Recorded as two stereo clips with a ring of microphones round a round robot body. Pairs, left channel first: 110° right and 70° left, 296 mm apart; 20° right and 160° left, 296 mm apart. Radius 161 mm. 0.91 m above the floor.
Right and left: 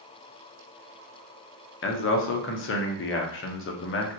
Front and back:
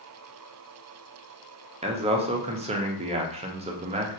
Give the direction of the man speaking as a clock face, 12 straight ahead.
5 o'clock.